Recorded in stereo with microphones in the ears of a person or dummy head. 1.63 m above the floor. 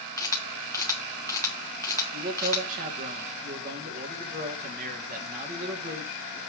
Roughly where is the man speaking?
Right.